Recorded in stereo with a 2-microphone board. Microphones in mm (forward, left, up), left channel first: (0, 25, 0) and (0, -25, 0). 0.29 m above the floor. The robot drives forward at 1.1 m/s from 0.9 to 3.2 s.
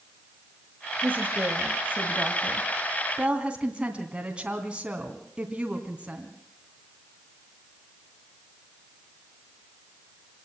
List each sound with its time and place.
1.0 s a woman speaking: 40° right (ahead or behind), 1.6 m; by 6.3 s 20° right (ahead or behind), 2.5 m